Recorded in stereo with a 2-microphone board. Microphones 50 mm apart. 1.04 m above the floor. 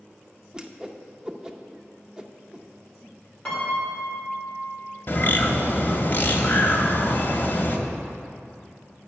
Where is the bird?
40° left (ahead or behind), 1.0 m.